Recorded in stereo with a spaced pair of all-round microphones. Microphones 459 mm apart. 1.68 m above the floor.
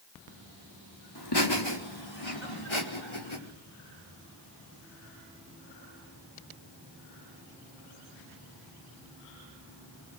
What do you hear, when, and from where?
1.1 s laughter: 55° left (ahead or behind), 4.5 m; by 3.4 s 85° left, 5.5 m